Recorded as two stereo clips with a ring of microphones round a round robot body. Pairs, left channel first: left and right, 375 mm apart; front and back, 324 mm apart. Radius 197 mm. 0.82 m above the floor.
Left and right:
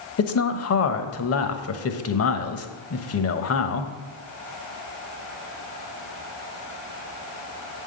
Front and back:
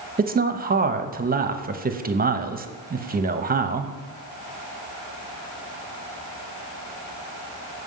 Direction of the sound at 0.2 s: 125° left.